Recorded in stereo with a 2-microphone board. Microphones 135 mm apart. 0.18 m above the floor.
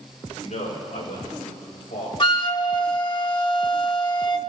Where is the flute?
35° left (ahead or behind), 0.5 m.